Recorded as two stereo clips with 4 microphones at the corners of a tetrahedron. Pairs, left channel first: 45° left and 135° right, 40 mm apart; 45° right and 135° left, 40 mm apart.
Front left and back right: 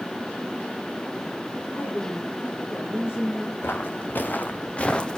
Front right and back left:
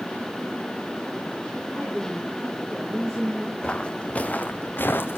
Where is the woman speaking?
45° left, 5 m; by 3.5 s 35° left, 7.5 m.